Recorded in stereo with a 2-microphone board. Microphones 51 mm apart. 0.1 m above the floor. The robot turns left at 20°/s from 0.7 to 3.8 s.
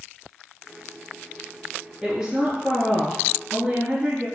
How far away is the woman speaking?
About 1.4 m.